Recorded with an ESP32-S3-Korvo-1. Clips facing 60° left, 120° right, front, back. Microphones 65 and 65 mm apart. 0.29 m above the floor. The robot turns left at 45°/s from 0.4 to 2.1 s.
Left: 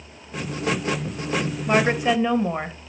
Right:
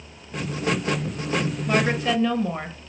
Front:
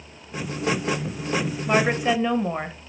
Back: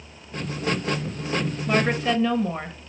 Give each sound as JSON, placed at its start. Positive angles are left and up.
{"t": 1.7, "sound": "a woman speaking", "azimuth_deg": 60, "distance_m": 1.0}